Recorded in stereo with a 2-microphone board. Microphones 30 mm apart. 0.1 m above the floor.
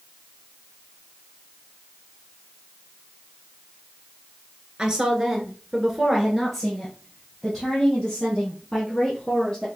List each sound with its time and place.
4.8 s a woman speaking: 20° right (ahead or behind), 1.4 m; by 9.7 s 15° left (ahead or behind), 4 m